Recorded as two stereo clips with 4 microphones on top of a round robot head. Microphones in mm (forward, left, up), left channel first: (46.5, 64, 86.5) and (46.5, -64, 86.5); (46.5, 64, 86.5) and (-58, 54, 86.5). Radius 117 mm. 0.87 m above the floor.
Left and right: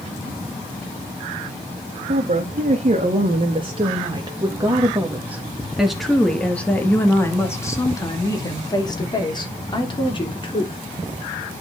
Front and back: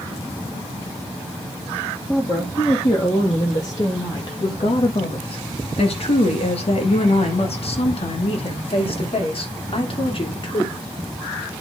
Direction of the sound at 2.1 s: 70° right.